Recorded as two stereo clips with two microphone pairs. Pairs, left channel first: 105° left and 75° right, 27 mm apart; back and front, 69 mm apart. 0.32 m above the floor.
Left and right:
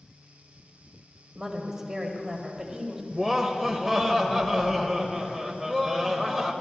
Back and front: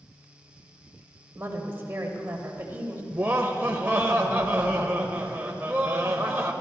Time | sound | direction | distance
1.4 | a woman speaking | 25° right | 1.6 m
3.1 | laughter | 5° right | 0.9 m